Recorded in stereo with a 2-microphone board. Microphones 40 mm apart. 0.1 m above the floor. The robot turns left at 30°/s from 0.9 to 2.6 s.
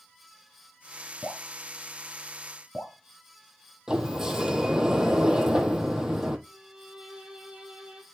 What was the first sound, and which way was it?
Dripping, 55° left (ahead or behind).